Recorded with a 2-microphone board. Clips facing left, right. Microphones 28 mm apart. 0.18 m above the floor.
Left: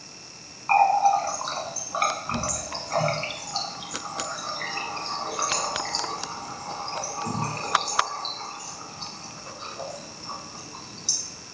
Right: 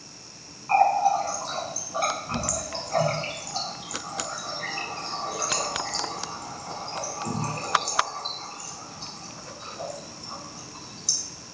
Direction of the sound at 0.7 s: 40° left (ahead or behind).